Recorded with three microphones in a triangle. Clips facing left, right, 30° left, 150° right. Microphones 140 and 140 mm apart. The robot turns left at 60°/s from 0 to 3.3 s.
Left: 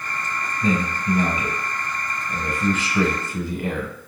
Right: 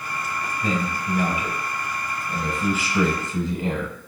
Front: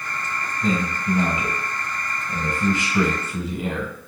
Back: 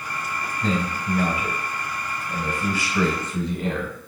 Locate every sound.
0.6 s a man speaking: 115° left, 1.1 m; by 4.1 s 45° right, 1.1 m